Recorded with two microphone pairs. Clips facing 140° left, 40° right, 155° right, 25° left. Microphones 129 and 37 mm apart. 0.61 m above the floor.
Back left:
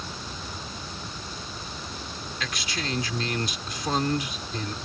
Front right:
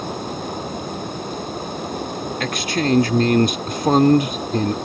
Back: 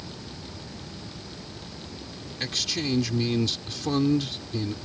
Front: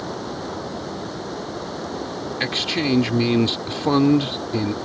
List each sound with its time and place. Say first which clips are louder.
0.0 s running water: front right 12 dB, front 12 dB; 5° right
2.4 s a man speaking: front right 12 dB, front 6 dB; 15° right